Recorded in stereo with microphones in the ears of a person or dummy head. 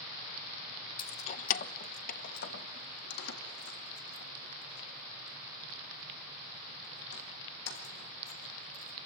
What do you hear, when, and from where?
1.0 s keys jangling: 30° left (ahead or behind), 0.8 m; by 8.9 s 65° left (ahead or behind), 6.5 m